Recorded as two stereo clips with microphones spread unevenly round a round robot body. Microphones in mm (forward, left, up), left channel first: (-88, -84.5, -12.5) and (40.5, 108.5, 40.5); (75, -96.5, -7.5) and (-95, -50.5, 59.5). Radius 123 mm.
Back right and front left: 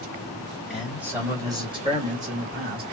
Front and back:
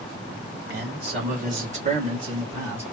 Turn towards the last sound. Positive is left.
turn(degrees=60)